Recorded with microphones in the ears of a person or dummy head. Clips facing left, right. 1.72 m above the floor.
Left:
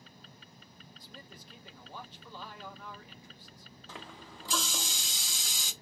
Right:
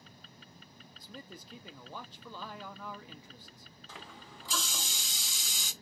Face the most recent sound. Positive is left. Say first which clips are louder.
# left 3 dB
turn(degrees=45)  # may be behind; listen again after turning